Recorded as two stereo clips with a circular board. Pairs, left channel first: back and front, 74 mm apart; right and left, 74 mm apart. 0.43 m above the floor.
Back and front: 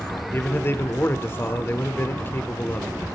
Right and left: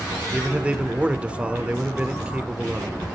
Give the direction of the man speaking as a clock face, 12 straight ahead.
7 o'clock.